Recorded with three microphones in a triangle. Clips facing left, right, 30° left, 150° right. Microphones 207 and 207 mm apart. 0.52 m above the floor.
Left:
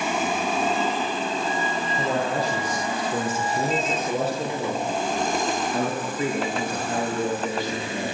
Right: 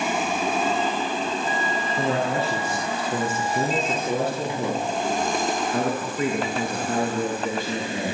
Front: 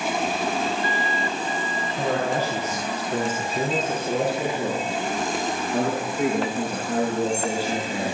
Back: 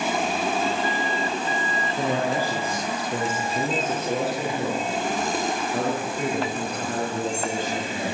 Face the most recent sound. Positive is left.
turn(degrees=-50)